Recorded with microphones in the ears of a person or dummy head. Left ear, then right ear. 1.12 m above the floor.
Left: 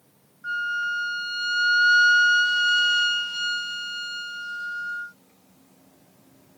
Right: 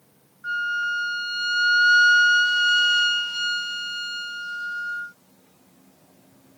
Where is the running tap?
I don't hear a running tap.